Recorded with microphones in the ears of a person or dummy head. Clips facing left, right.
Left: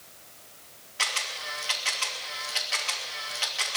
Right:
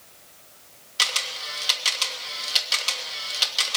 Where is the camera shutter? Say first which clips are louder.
Right 2 dB; 45° right (ahead or behind), 3 m.